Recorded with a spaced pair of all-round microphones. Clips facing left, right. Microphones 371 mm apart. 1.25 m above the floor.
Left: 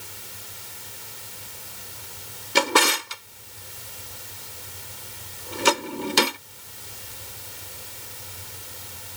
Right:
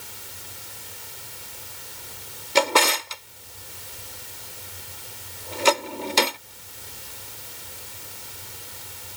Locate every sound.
2.5 s a drawer: 25° left (ahead or behind)